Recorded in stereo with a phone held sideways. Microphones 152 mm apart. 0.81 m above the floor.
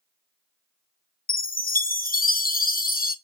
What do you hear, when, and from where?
1.3 s a chime: 65° left (ahead or behind), 0.6 m